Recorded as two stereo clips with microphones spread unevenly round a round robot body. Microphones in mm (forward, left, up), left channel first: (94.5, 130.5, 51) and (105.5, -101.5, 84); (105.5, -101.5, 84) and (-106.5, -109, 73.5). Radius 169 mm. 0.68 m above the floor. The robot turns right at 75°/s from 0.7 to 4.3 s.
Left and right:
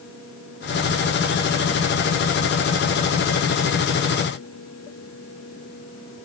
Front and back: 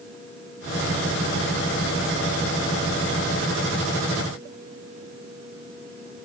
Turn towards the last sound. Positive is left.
No sound to turn to.